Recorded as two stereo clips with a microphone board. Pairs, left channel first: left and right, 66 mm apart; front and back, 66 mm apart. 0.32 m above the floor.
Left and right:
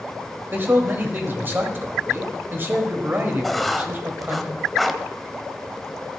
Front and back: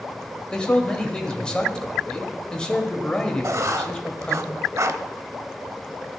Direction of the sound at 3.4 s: Straight behind.